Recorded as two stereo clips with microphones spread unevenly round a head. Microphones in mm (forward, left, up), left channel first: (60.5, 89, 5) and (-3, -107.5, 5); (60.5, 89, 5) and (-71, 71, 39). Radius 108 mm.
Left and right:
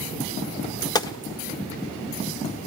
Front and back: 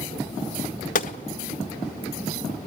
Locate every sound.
0.9 s a gunshot: 10° left, 1.3 m